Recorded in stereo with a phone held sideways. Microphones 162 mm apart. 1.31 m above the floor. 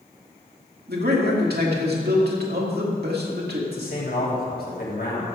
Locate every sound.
0.9 s a man speaking: 80° right, 2.5 m
3.7 s a man speaking: 70° left (ahead or behind), 3 m